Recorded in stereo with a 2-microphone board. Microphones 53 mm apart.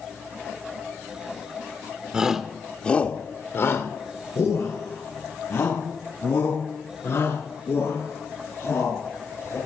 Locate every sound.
2.1 s a shout: 15° right (ahead or behind), 1.6 m; by 9.6 s 65° left (ahead or behind), 9 m